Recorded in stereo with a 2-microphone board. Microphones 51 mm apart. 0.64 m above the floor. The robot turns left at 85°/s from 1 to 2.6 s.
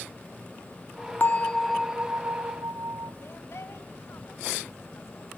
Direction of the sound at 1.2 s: 45° left.